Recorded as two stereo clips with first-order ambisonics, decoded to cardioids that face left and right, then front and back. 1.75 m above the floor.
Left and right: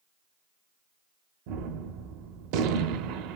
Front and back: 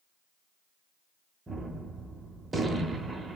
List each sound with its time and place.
1.5 s a gunshot: 100° right, 0.6 m